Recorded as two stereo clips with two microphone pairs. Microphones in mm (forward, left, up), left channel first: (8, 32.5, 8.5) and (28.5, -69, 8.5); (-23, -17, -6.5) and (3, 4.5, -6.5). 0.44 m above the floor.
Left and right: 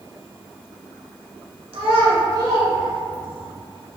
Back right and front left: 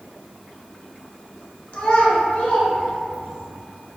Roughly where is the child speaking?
Right.